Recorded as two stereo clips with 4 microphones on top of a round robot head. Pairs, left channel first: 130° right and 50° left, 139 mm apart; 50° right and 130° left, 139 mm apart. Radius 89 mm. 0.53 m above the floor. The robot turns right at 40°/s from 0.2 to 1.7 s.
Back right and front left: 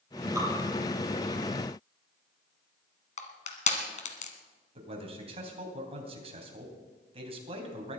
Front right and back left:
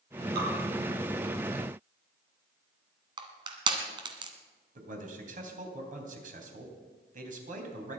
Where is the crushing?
170° right, 1.8 m.